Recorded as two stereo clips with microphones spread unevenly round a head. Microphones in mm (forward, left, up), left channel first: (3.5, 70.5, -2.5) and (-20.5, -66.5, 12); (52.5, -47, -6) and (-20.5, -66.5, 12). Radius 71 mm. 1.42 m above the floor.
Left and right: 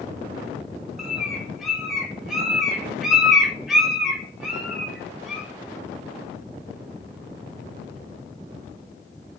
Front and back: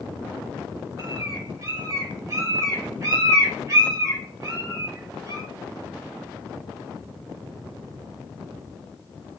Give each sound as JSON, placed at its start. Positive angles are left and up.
{"t": 1.0, "sound": "a bird", "azimuth_deg": 175, "distance_m": 0.6}